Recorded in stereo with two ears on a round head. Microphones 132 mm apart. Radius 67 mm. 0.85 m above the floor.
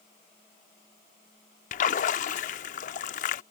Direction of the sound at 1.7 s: 55° left (ahead or behind).